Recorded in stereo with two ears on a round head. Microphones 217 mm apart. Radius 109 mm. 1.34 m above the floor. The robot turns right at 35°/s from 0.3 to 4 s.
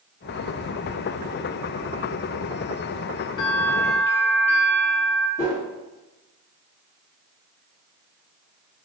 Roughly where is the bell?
Centre.